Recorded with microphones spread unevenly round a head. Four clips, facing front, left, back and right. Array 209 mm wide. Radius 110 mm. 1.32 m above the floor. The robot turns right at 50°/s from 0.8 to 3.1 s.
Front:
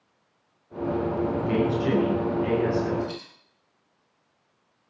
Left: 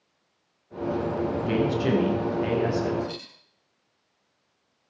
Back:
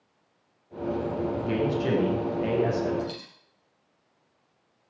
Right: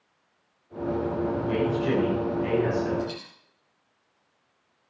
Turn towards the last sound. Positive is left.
turn(degrees=-155)